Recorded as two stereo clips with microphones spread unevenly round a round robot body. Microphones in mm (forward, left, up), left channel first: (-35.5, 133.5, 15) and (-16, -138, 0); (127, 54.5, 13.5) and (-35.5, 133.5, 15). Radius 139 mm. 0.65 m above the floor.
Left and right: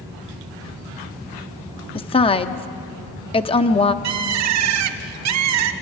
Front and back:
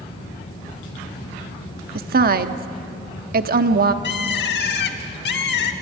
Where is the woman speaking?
160° left, 1.1 m.